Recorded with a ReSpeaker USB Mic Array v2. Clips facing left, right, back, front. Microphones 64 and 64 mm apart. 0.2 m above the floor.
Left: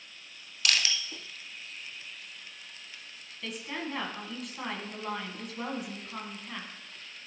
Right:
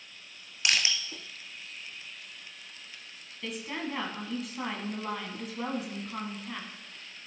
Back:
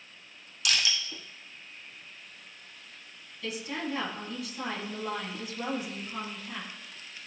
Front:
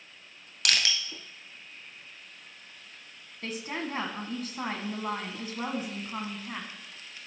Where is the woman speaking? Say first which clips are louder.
Right 1 dB, even; 5° right, 1.6 m.